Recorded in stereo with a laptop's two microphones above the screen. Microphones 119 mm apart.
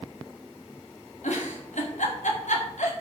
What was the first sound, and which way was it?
A giggle, 85° left.